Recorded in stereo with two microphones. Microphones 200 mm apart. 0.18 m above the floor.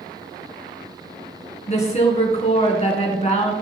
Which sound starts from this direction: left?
A woman speaking, at 1.7 s.